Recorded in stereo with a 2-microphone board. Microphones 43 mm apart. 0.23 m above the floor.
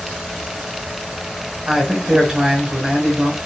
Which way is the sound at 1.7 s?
15° right (ahead or behind).